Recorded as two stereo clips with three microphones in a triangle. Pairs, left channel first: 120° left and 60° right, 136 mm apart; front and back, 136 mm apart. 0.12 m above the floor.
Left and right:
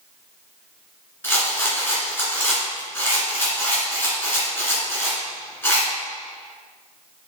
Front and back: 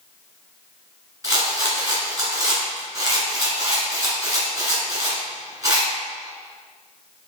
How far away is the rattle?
About 1.7 m.